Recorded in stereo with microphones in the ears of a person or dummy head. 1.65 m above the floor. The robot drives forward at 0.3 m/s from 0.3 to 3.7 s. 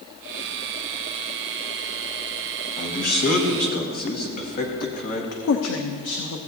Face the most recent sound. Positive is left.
turn(degrees=65)  # may be behind; listen again after turning